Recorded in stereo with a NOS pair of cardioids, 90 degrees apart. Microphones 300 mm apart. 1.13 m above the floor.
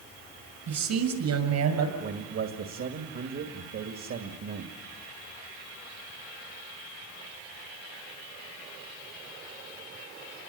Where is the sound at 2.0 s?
60° right, 2.5 m.